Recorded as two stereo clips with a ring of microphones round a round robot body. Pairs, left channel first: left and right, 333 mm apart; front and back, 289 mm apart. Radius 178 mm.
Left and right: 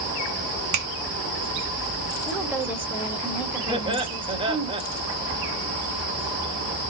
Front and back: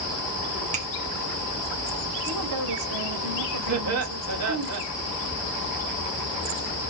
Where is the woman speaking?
175° right, 2.0 m.